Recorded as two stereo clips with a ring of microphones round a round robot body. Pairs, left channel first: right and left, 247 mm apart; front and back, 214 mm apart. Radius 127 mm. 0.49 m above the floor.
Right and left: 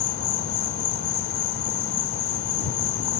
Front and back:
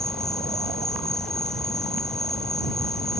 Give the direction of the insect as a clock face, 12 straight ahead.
3 o'clock.